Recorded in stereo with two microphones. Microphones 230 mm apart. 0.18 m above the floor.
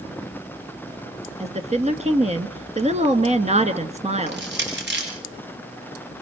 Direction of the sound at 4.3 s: 50° right (ahead or behind).